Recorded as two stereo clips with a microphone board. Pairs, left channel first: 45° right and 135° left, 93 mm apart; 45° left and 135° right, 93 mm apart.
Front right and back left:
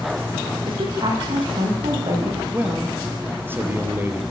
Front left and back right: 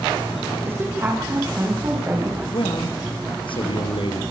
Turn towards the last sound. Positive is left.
turn(degrees=70)